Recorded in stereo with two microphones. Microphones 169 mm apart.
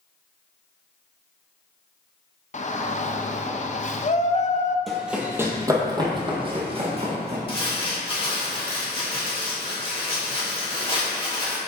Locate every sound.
2.5 s a shout: 45° left (ahead or behind), 0.6 m
4.9 s running footsteps: centre (ahead or behind), 1.1 m; by 7.4 s 40° right (ahead or behind), 2.5 m
7.5 s crumpling: 30° left (ahead or behind), 2 m